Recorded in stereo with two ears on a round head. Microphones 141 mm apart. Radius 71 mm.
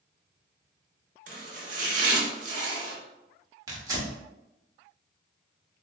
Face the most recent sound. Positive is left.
turn(degrees=-25)  # may be behind; listen again after turning